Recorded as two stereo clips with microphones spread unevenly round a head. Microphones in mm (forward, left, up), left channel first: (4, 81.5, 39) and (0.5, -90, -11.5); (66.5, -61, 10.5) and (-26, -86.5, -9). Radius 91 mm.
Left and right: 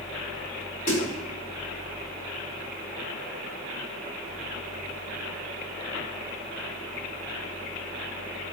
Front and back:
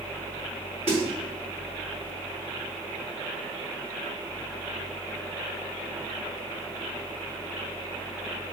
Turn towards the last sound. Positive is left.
turn(degrees=135)